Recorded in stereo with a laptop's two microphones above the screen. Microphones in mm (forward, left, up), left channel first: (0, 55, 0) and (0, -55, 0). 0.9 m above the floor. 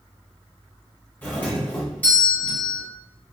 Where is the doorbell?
15° left (ahead or behind), 1.6 m.